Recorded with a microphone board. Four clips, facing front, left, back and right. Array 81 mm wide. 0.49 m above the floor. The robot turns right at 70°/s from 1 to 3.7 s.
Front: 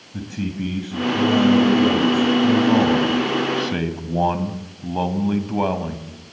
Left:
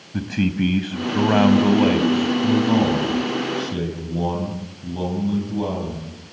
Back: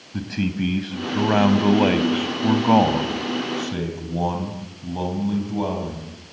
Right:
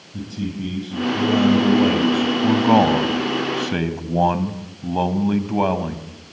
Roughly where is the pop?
No pop in this recording.